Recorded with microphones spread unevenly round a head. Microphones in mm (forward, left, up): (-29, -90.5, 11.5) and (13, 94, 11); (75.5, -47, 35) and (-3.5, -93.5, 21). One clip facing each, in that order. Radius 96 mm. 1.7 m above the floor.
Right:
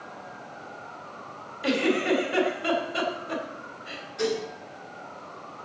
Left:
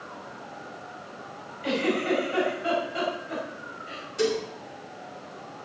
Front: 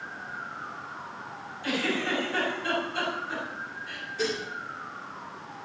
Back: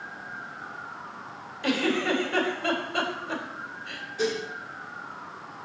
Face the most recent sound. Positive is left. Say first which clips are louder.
# left 2 dB, back 3 dB
turn(degrees=125)